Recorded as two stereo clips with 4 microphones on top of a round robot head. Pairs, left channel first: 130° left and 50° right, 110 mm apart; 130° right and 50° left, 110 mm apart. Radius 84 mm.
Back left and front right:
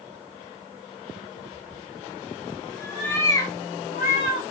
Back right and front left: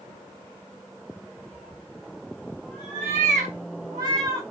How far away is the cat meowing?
About 1.4 m.